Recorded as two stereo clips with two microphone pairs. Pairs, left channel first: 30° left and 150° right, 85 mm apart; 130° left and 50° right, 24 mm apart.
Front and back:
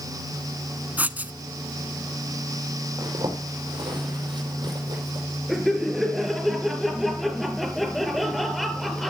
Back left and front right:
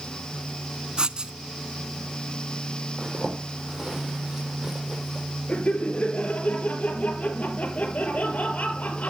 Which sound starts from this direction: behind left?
Laughter, at 5.5 s.